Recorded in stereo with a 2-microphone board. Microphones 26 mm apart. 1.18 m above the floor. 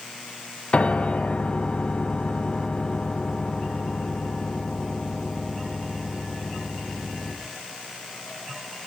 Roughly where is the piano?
Left.